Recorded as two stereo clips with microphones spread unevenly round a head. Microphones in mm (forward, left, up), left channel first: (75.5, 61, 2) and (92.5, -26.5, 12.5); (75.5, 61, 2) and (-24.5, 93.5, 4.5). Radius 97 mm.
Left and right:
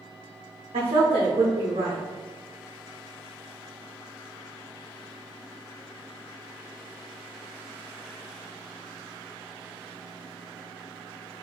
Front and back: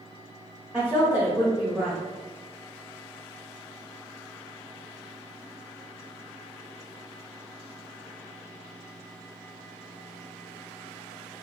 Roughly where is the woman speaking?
Behind right.